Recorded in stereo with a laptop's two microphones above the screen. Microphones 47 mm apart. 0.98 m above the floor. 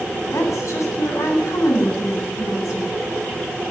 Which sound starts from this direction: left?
A woman speaking, at 0.3 s.